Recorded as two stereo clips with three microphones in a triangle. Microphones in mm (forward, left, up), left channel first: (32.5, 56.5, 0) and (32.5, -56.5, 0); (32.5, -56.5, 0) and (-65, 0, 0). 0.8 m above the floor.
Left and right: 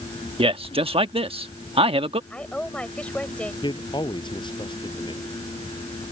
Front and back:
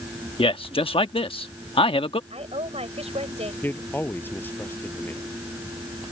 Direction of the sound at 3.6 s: 45° left.